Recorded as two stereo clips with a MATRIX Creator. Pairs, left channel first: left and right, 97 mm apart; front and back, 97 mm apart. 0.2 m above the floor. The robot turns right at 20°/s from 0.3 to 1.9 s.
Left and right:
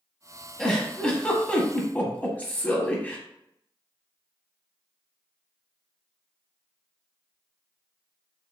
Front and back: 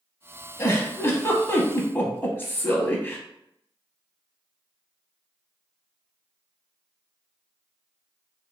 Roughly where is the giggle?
Ahead.